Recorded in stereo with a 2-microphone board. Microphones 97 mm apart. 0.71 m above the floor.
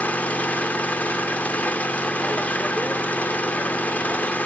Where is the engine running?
15° left (ahead or behind), 0.9 m.